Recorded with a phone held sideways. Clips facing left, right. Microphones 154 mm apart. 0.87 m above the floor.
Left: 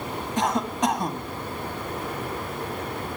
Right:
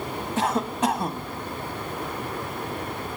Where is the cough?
5° right (ahead or behind), 1.4 m.